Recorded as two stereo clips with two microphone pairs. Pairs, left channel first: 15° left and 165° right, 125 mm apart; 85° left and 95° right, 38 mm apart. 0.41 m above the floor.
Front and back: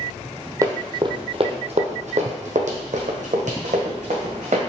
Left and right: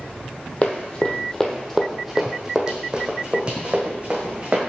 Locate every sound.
0.6 s running footsteps: 135° left, 0.9 m; by 4.6 s 145° right, 2 m